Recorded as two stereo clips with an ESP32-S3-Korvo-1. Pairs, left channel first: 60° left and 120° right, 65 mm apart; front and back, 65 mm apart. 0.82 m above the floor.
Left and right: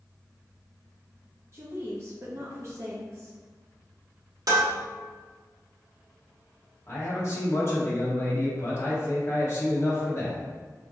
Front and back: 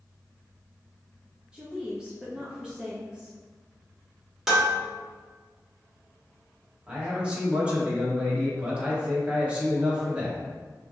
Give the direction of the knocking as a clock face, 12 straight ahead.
I don't hear knocking.